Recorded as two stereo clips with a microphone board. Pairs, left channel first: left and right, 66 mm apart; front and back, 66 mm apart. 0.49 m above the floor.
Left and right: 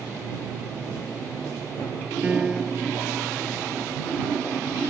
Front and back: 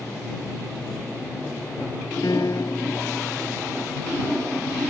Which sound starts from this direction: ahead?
A piano, at 2.2 s.